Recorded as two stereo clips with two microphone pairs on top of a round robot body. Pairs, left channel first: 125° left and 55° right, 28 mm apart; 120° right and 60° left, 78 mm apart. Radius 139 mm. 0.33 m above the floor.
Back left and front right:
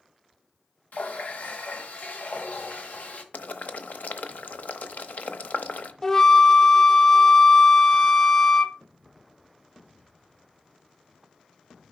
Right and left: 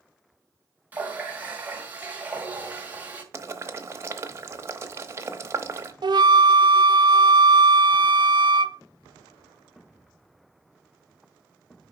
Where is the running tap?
135° left, 1.7 m.